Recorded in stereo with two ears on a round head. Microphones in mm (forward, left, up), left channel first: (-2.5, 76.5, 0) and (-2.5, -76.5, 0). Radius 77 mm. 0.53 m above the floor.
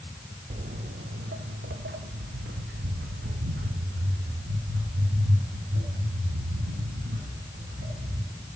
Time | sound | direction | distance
0.5 | footsteps | 40° right (ahead or behind) | 0.7 m